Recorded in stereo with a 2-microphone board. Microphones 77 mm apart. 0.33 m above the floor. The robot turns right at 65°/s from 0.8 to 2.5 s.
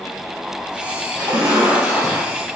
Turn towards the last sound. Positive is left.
turn(degrees=20)